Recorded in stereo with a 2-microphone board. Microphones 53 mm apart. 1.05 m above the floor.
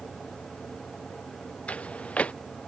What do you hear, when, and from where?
1.7 s footsteps: 25° left (ahead or behind)